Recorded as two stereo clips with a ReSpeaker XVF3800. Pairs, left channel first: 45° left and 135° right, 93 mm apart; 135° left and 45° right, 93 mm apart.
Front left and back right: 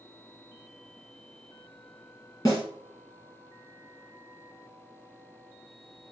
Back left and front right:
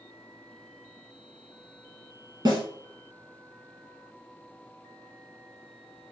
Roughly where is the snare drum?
Ahead.